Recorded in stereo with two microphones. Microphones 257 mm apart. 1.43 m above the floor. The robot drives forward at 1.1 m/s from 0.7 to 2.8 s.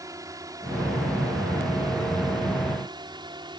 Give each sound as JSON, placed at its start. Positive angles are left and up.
{"t": 0.0, "sound": "a drone", "side_deg": -15}